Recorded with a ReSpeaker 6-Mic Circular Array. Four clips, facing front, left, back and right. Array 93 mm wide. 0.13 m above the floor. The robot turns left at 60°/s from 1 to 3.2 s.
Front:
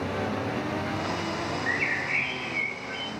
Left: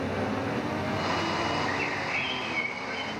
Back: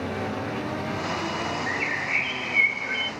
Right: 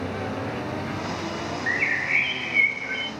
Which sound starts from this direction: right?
A bird, at 1.7 s.